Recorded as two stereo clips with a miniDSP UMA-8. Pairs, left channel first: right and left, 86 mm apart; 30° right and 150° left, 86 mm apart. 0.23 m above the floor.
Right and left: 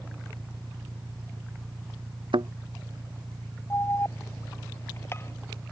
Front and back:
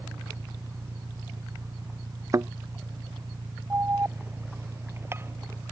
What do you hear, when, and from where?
0.0 s an engine running: 105° left
2.3 s a thud: 100° left
3.7 s an alarm: 150° right